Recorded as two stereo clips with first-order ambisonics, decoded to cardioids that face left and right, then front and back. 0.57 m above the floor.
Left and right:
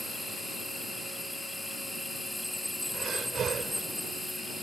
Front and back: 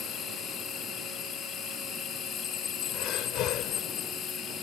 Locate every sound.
0.0 s an insect: 10° left
2.9 s breathing: 30° right